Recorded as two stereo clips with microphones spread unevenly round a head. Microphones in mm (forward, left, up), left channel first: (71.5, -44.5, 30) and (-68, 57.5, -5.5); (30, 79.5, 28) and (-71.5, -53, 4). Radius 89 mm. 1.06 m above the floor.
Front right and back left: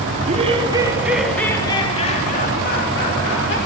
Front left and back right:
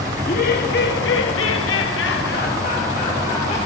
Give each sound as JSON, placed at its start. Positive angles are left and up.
{"t": 0.2, "sound": "laughter", "azimuth_deg": 95, "distance_m": 2.5}